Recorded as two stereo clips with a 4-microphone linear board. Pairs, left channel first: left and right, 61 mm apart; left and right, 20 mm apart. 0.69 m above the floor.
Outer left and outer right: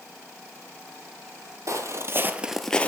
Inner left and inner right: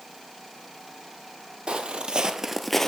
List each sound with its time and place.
1.7 s footsteps: 60° right (ahead or behind), 1.3 m; by 2.9 s 25° left (ahead or behind), 0.8 m